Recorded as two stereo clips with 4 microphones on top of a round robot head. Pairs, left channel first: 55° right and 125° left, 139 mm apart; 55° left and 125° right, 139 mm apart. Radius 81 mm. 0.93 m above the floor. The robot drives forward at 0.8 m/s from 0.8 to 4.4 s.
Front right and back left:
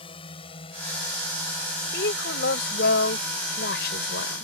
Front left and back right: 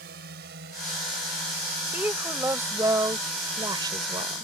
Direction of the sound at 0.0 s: 110° right.